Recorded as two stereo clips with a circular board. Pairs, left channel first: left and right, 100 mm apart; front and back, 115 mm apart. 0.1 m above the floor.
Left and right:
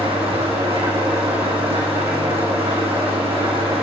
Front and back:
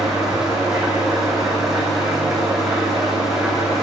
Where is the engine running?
90° right, 5 m.